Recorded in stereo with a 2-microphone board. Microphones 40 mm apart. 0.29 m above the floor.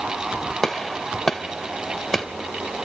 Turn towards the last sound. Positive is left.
turn(degrees=10)  # may be behind; listen again after turning